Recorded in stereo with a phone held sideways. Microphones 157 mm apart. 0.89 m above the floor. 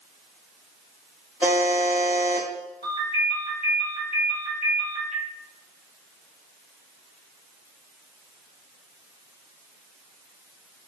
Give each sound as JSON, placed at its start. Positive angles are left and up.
{"t": 1.4, "sound": "a buzzer", "side_deg": -10, "distance_m": 1.0}
{"t": 2.8, "sound": "a ringtone", "side_deg": 45, "distance_m": 1.5}